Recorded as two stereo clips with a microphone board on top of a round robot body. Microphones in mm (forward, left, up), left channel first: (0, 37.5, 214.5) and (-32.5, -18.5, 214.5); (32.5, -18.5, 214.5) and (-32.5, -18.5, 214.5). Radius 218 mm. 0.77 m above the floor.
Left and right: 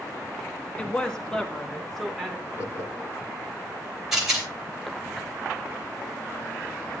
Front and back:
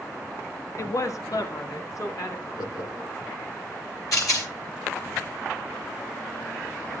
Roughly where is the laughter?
Ahead.